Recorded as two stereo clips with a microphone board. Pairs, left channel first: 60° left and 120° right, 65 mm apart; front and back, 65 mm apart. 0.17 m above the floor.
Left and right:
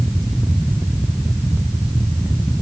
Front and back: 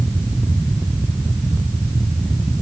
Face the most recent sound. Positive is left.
No sound to turn to.